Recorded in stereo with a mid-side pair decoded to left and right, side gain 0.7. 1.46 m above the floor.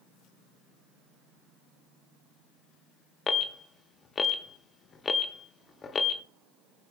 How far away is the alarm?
About 0.7 m.